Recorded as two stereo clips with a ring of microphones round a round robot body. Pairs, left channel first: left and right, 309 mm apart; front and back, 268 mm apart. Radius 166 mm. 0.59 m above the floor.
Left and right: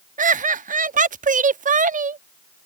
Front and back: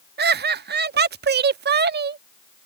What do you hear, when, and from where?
0.2 s laughter: 145° right